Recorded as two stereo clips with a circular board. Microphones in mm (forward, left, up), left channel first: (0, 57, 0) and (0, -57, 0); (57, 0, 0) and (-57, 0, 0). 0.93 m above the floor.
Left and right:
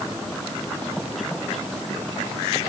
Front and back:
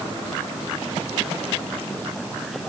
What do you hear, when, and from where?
Only background noise.